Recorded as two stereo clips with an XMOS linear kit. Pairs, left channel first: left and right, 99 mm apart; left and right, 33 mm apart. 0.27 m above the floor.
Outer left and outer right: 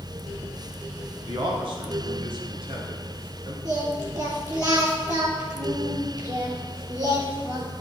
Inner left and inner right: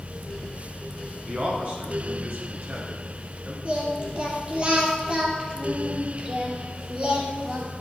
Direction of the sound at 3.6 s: 45° right (ahead or behind).